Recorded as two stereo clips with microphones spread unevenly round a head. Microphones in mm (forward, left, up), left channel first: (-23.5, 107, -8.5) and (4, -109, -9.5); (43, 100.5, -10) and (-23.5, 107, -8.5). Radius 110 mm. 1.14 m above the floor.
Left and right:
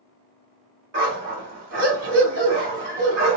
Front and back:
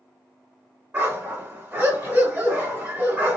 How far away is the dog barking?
About 1.4 m.